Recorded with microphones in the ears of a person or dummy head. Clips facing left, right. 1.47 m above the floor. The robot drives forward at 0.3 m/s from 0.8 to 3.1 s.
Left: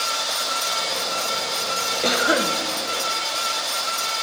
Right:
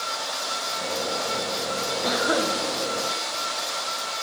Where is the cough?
40° left (ahead or behind), 0.9 m; by 2.5 s 35° left (ahead or behind), 1.0 m.